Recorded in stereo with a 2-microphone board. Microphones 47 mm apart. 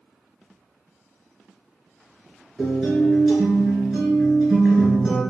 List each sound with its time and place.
2.6 s a guitar: 5° right (ahead or behind), 1.7 m